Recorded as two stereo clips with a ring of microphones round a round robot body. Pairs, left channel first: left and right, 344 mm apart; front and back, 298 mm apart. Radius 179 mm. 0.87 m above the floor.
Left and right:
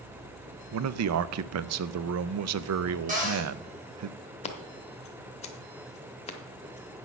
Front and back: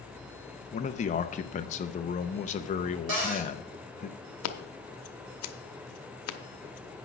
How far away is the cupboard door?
About 3.5 m.